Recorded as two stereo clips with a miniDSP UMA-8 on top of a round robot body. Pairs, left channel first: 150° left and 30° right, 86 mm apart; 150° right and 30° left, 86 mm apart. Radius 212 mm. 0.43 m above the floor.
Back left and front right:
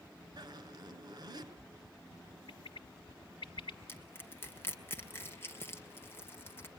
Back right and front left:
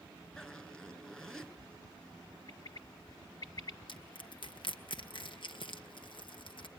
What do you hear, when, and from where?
0.4 s a zipper: 70° right, 3.5 m
2.5 s a bird: 170° left, 1.4 m
3.9 s crushing: 150° right, 2.5 m